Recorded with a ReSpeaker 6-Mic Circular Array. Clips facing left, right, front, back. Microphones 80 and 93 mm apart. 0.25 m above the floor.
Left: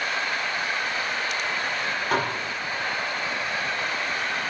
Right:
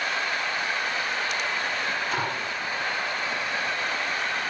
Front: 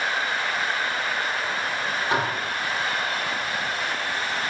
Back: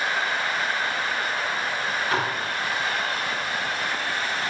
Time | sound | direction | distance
2.1 | dishes clattering | 65° left | 5 m